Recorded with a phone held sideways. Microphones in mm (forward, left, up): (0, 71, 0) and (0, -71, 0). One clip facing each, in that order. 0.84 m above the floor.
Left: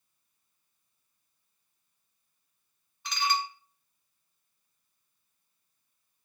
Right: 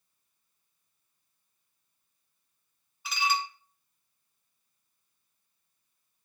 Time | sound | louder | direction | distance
3.0 | dishes clattering | even | 5° right (ahead or behind) | 0.7 m